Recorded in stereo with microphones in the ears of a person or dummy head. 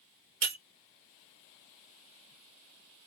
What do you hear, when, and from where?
0.4 s breaking glass: 55° right (ahead or behind), 1.3 m